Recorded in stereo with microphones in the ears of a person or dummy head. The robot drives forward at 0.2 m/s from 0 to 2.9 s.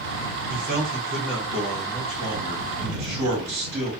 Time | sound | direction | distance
0.5 | a man speaking | 40° right (ahead or behind) | 0.8 m